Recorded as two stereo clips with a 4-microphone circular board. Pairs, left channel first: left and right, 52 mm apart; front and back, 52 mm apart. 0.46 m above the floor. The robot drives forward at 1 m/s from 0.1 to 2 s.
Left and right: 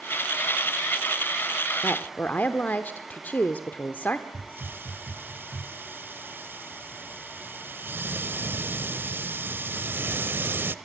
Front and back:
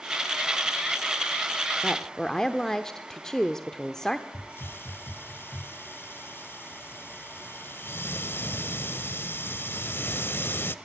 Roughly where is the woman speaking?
Ahead left.